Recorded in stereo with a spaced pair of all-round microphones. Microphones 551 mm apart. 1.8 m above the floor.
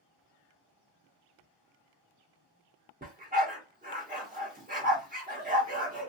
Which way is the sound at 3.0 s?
15° right (ahead or behind).